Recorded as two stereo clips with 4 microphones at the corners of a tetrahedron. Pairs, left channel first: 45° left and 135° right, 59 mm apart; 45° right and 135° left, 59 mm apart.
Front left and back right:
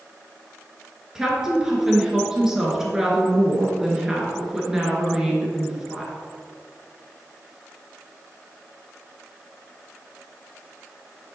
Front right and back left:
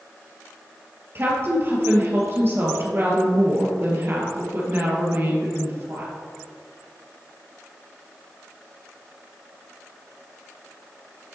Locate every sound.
1.1 s a woman speaking: 150° left, 1.9 m